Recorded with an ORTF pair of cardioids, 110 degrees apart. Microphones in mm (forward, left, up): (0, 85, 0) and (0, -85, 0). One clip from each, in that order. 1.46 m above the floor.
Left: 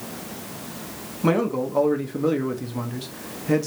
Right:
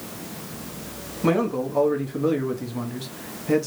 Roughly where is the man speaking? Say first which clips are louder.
Even; ahead.